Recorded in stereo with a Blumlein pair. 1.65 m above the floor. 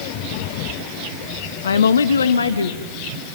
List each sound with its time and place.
1.6 s a woman speaking: 65° left, 0.9 m; by 2.9 s 80° left, 1.7 m